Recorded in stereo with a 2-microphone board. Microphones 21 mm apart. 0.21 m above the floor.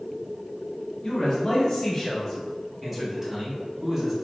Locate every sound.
1.0 s a man speaking: 25° left (ahead or behind), 1.9 m; by 4.1 s 25° right (ahead or behind), 2 m